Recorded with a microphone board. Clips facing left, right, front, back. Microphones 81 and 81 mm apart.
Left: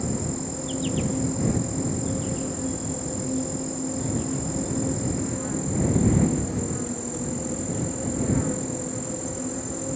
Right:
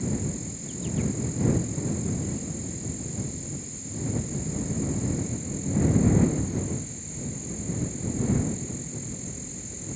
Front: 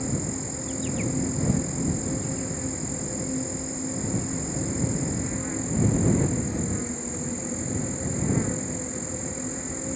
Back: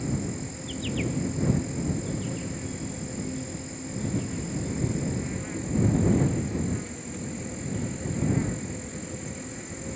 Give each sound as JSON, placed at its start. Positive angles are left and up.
{"t": 0.0, "sound": "an insect", "azimuth_deg": 70}